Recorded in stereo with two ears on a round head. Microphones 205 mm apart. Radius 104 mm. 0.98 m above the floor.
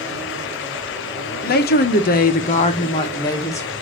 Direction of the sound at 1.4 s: 45° left (ahead or behind).